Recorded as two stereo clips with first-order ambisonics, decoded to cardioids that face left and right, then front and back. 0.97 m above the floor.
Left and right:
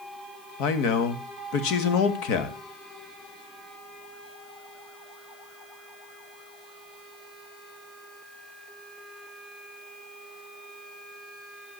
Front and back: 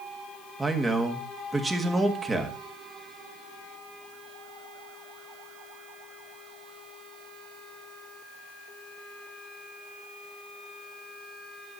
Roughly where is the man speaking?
Left.